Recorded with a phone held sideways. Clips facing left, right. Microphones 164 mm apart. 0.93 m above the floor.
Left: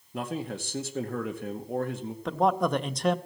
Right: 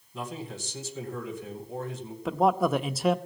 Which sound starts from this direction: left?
A man speaking, at 0.1 s.